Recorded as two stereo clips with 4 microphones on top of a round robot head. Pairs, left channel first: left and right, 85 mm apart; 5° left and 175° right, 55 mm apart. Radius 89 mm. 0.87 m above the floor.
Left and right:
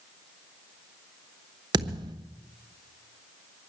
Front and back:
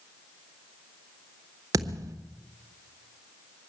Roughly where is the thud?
Behind right.